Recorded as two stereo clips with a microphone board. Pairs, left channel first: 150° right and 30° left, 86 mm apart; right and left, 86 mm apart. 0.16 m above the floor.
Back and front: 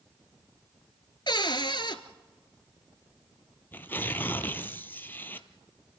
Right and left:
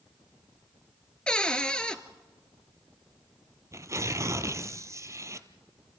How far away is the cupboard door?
About 1.0 m.